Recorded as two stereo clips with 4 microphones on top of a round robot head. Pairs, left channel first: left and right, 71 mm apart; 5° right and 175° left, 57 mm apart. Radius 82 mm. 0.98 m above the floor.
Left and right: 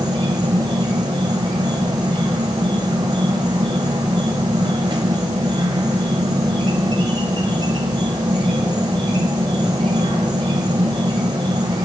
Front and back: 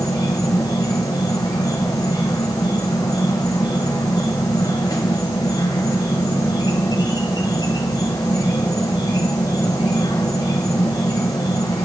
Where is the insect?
50° right, 0.9 m.